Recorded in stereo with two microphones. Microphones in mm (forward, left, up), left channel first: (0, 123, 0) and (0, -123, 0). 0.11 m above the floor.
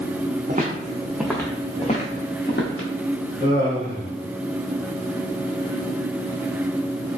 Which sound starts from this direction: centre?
Laughter, at 3.4 s.